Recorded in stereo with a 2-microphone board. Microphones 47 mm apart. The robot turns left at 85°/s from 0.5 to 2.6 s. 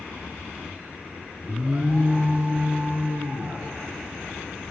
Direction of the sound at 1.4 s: 10° right.